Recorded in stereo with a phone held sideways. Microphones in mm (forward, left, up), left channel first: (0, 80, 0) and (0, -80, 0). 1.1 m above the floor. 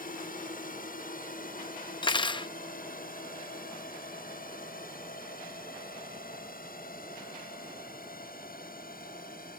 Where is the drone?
60° left (ahead or behind); by 9.6 s 65° left (ahead or behind).